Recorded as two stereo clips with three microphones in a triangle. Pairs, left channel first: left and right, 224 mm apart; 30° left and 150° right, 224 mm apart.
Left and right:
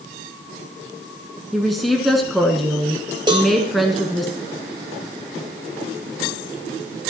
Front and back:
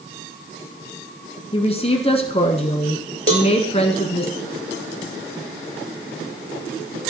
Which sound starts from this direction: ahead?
A woman speaking, at 1.5 s.